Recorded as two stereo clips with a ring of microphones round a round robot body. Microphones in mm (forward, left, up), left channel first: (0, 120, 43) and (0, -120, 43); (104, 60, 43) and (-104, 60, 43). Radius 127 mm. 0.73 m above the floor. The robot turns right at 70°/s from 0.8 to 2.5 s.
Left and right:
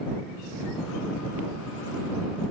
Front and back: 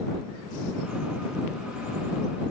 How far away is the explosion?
I don't hear an explosion.